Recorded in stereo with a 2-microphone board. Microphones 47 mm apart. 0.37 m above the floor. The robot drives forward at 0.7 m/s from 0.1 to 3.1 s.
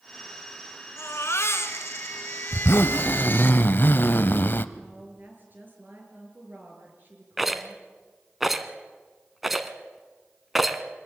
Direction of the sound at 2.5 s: 65° left (ahead or behind).